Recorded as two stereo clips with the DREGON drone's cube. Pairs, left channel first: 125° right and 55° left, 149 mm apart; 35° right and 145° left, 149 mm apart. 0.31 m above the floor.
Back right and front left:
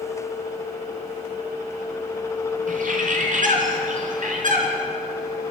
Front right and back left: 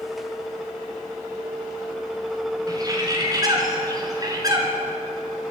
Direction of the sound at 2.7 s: 80° left.